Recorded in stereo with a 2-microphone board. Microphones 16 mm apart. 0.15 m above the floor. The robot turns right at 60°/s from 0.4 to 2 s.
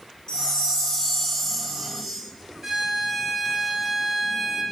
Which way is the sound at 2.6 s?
25° right (ahead or behind).